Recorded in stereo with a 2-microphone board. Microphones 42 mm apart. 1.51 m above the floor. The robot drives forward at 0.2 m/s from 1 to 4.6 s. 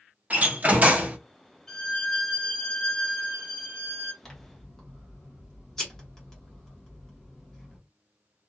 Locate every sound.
0.3 s a door slam: 35° right (ahead or behind), 0.8 m
1.7 s a violin: 15° left (ahead or behind), 0.8 m; by 4.1 s 10° left (ahead or behind), 1.3 m
4.2 s scissors: 10° left (ahead or behind), 1.1 m